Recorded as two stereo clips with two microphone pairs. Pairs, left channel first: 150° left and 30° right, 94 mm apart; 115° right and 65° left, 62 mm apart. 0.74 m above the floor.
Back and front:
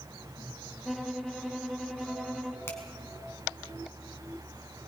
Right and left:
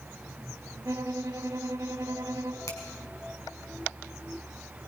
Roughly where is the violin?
Ahead left.